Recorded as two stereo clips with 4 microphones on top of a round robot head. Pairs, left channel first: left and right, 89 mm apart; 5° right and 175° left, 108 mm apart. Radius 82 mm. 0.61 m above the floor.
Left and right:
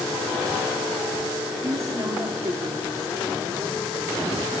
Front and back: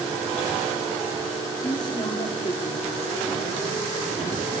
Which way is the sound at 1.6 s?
45° right.